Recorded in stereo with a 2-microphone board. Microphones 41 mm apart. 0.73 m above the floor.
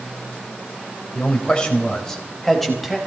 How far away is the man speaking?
About 3.5 m.